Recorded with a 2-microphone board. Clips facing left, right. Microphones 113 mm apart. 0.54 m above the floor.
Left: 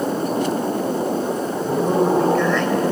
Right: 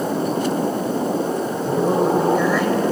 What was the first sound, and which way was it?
A man speaking, 5° right (ahead or behind).